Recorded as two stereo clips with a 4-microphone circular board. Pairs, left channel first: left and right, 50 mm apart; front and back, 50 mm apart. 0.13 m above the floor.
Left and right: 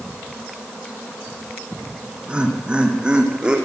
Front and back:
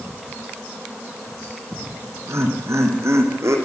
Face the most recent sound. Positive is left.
turn(degrees=-165)